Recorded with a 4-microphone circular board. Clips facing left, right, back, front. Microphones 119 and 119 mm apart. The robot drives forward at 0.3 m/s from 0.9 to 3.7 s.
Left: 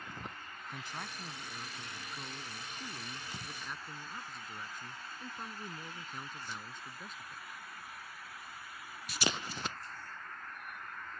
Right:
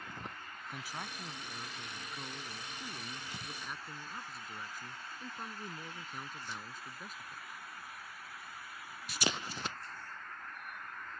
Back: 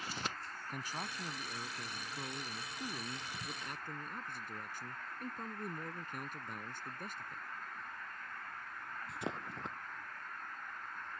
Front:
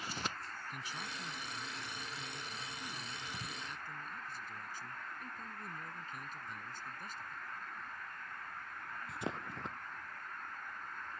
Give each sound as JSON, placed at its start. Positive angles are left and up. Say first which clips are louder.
{"t": 0.7, "sound": "a man speaking", "louder": "even, back 5 dB", "azimuth_deg": -170}